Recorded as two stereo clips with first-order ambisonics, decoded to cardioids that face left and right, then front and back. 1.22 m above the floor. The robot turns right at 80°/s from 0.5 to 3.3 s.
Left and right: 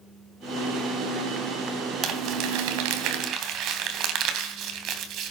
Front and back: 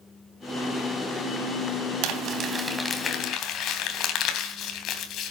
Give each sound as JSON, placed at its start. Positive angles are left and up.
{"t": 2.0, "sound": "crumpling", "azimuth_deg": -150, "distance_m": 3.0}